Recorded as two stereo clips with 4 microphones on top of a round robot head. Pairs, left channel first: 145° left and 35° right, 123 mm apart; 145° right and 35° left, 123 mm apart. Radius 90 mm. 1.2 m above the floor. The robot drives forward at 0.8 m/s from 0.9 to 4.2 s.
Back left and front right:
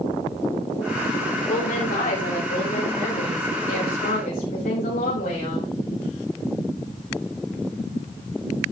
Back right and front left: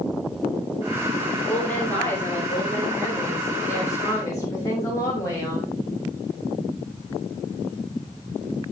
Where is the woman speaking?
135° left, 5 m; by 5.7 s 145° left, 6.5 m.